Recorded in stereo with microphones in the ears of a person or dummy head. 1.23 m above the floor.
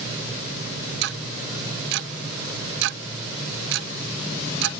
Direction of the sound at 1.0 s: 60° right (ahead or behind).